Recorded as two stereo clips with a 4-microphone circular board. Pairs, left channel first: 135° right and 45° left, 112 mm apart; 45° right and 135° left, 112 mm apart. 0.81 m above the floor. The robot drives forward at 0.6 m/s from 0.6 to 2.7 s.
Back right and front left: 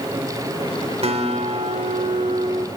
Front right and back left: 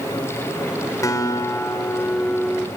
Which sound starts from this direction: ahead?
A guitar, at 1.0 s.